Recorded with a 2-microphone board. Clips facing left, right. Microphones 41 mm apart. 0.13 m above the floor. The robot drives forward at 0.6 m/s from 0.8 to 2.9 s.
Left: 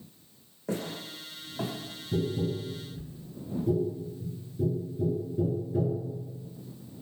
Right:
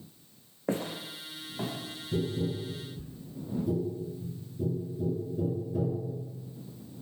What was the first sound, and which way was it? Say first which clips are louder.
Footsteps: right 2 dB; 35° right (ahead or behind).